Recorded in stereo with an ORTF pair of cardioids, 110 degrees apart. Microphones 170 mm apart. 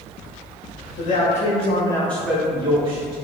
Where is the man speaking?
55° left, 0.8 m; by 3.1 s 50° right, 0.6 m.